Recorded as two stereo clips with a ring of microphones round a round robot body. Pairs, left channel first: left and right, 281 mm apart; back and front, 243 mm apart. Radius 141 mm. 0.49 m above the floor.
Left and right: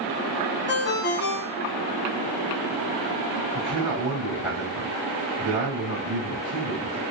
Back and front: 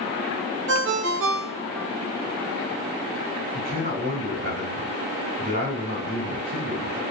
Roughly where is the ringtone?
Ahead left.